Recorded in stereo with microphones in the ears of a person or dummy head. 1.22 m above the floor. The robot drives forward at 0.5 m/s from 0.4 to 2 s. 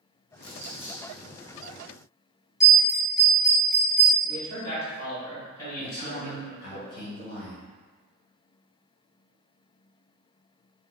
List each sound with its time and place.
0.4 s crumpling: 50° left (ahead or behind), 0.8 m; by 1.1 s 40° left (ahead or behind), 1.0 m
2.6 s a bell: centre (ahead or behind), 0.9 m
4.2 s a man speaking: 20° left (ahead or behind), 1.8 m
5.8 s a man speaking: 55° left (ahead or behind), 2.0 m